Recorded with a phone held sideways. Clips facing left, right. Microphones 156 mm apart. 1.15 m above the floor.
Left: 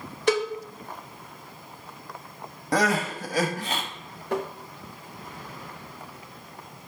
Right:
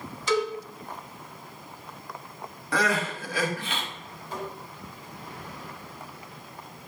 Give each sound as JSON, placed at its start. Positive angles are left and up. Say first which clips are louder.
{"t": 0.3, "sound": "a cowbell", "louder": "left 2 dB", "side_deg": 55, "distance_m": 1.1}
{"t": 2.7, "sound": "crying", "louder": "left 3 dB", "side_deg": 40, "distance_m": 1.2}
{"t": 4.3, "sound": "tapping", "louder": "left 7 dB", "side_deg": 60, "distance_m": 0.7}